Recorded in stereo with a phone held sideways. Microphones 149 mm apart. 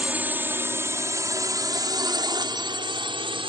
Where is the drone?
10° right (ahead or behind); by 3.5 s 35° right (ahead or behind).